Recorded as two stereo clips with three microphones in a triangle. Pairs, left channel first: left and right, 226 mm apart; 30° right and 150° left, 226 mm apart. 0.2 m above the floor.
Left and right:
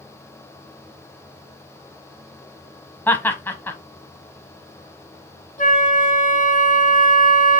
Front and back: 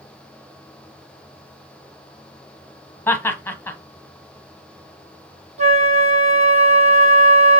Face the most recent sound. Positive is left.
turn(degrees=115)